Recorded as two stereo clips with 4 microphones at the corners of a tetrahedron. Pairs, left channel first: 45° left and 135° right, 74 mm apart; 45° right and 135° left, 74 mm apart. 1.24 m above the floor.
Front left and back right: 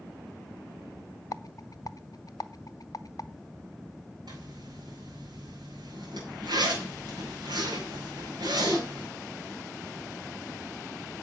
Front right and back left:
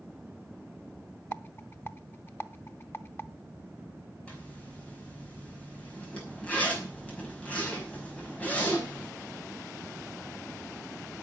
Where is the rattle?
15° left, 0.7 m.